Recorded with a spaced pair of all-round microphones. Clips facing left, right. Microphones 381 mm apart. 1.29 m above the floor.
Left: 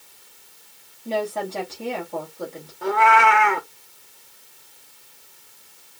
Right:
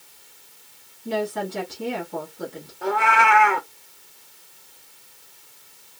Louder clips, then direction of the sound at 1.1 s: Even; 25° right (ahead or behind).